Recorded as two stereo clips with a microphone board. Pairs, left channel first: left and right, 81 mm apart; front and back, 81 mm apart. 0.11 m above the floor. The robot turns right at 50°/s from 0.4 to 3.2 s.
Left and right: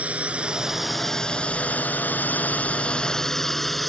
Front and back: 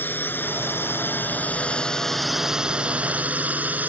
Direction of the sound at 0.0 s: 35° right.